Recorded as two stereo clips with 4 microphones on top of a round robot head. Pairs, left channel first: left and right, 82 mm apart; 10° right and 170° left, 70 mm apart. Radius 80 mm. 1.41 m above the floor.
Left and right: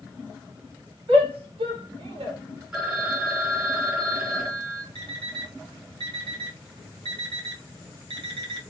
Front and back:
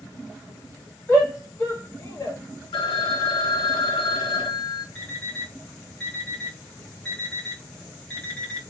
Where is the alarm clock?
90° right, 1.1 m.